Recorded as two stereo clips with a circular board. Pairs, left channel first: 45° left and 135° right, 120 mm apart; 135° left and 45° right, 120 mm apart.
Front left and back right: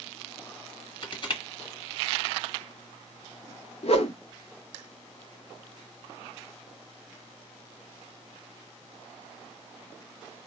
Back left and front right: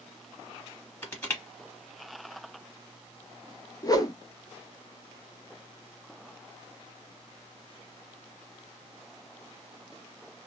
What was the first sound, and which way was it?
Crushing, 70° left.